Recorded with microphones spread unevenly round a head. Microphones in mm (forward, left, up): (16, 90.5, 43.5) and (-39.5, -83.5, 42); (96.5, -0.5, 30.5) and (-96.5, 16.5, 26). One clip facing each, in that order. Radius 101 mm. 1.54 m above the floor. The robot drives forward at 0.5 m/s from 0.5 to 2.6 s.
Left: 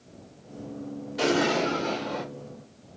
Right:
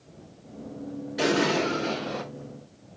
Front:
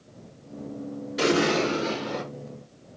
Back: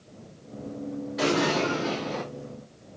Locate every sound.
1.2 s an explosion: 35° right, 1.4 m; by 2.2 s 70° right, 1.3 m